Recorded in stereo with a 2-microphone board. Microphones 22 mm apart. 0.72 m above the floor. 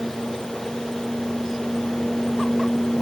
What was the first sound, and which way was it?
Only background noise.